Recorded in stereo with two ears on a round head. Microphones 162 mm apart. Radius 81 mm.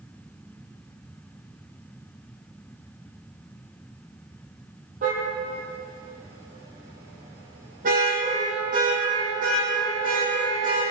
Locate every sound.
5.0 s a car horn: 45° right (ahead or behind), 9.5 m; by 10.8 s 50° right (ahead or behind), 13.5 m